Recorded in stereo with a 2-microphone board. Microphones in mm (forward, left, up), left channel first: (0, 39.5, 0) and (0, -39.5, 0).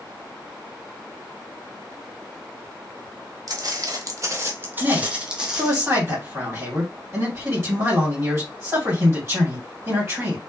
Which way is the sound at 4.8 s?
25° right (ahead or behind).